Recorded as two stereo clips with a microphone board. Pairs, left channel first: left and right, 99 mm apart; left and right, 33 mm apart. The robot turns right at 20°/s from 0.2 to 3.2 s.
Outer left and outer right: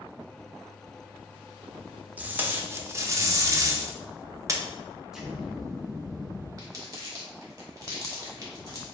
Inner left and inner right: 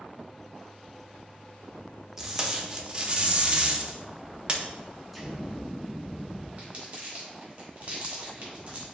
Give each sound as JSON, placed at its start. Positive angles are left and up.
{"t": 2.2, "sound": "tape being pulled", "side_deg": -15, "distance_m": 0.6}
{"t": 5.1, "sound": "an explosion", "side_deg": -5, "distance_m": 1.5}
{"t": 6.6, "sound": "crumpling", "side_deg": -35, "distance_m": 1.6}